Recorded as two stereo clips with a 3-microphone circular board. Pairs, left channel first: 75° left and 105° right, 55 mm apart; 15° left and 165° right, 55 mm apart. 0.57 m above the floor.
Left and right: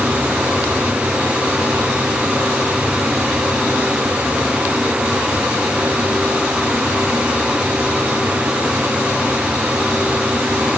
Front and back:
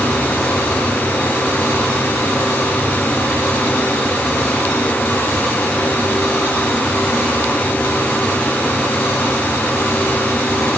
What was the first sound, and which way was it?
Only background noise.